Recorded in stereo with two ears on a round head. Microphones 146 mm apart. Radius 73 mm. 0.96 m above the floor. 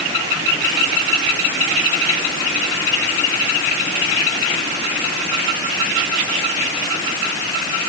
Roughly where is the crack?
I don't hear a crack.